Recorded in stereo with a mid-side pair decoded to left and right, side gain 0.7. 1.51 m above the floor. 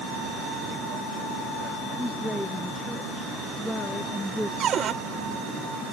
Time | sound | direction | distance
2.0 | a woman speaking | 5° left | ?
4.6 | a cupboard door | 40° right | ?